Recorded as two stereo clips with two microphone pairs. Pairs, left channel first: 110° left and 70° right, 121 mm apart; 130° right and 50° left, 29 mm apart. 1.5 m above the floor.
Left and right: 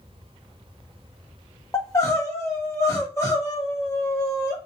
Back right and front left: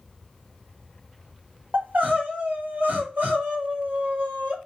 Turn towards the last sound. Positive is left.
turn(degrees=45)